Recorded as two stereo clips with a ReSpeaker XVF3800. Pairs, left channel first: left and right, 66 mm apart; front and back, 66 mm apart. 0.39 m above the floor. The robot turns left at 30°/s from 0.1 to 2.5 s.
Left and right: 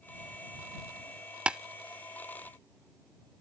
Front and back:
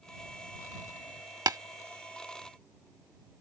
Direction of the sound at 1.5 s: 160° right.